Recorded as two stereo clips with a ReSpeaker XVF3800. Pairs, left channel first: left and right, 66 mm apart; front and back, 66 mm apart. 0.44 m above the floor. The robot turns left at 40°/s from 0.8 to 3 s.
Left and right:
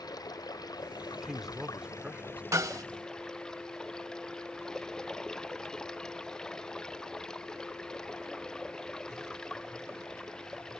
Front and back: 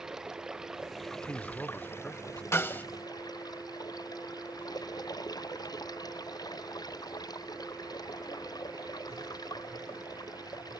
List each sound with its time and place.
0.0 s running water: 100° left; by 10.8 s 10° left
1.1 s a man speaking: straight ahead; by 2.4 s 50° right
2.5 s a snare drum: 50° right; by 2.9 s 65° right